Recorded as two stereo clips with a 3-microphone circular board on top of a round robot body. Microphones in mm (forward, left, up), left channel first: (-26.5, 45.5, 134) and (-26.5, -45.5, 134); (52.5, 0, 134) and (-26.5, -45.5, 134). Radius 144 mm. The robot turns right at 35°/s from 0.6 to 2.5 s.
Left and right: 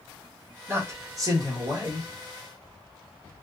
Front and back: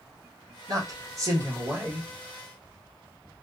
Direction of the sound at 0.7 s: 135° right.